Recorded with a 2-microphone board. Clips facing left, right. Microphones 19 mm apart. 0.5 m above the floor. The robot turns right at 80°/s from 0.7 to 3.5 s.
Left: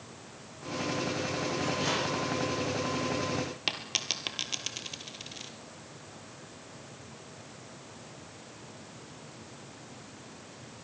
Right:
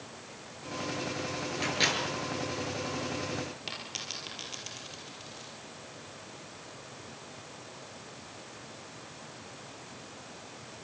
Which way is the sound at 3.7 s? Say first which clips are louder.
Left 6 dB; 35° left (ahead or behind).